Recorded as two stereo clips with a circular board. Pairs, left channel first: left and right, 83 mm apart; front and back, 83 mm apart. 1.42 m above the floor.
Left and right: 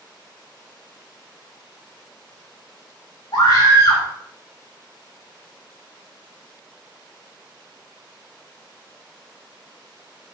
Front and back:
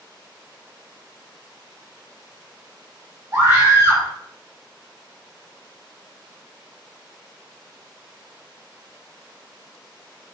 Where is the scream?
125° left, 4 m.